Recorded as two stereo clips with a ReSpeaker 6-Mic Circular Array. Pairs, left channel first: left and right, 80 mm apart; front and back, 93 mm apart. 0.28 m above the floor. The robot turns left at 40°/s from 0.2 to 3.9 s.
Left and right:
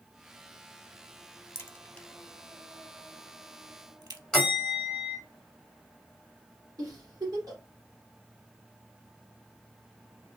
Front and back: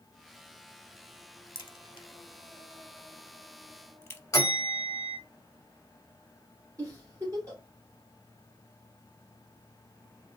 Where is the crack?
30° left, 0.6 m; by 4.2 s 60° right, 0.6 m.